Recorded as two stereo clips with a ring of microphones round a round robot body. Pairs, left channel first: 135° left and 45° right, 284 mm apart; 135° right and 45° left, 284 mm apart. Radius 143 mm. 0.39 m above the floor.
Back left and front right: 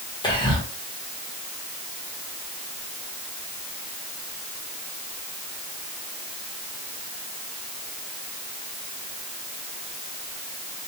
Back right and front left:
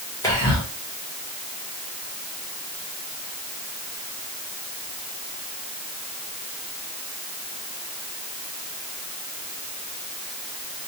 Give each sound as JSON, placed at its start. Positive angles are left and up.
{"t": 0.2, "sound": "whispering", "azimuth_deg": 170, "distance_m": 1.1}